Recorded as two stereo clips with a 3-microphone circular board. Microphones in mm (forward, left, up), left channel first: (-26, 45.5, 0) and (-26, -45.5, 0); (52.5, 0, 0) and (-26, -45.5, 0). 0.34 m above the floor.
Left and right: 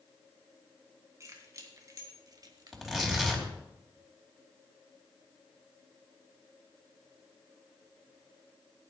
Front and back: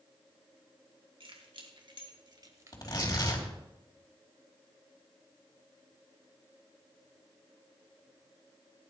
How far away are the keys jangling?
About 2.5 m.